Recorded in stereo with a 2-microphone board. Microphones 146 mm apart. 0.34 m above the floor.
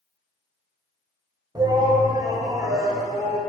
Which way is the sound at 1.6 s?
30° right (ahead or behind).